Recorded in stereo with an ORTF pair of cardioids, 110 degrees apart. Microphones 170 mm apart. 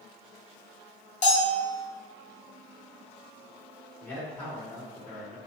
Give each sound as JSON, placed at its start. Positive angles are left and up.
{"t": 1.2, "sound": "a bell", "azimuth_deg": 45, "distance_m": 1.3}
{"t": 4.0, "sound": "a man speaking", "azimuth_deg": 10, "distance_m": 2.0}